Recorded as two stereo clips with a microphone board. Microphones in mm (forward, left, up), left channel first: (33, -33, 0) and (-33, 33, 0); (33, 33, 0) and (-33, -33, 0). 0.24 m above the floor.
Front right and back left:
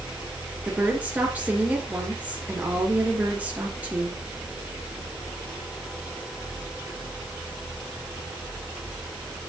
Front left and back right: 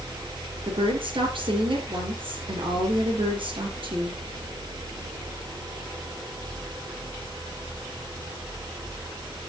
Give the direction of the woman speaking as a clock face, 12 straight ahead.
5 o'clock.